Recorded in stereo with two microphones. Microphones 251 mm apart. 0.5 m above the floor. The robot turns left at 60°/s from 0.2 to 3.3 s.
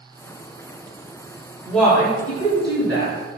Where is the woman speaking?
175° right, 1.0 m; by 3.2 s 90° left, 1.0 m.